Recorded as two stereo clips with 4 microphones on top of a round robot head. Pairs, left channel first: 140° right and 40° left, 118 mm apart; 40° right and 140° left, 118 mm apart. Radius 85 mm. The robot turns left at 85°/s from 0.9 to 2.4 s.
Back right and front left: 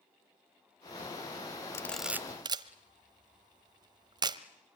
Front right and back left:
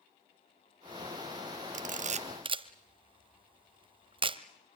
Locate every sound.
1.7 s a camera shutter: 150° left, 0.9 m; by 4.4 s 95° left, 0.9 m